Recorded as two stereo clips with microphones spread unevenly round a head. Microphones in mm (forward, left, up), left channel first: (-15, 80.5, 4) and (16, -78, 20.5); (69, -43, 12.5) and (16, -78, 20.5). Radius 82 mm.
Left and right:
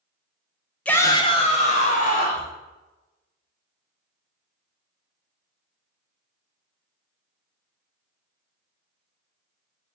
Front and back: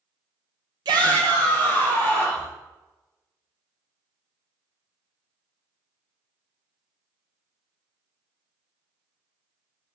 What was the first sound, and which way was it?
A shout, 175° right.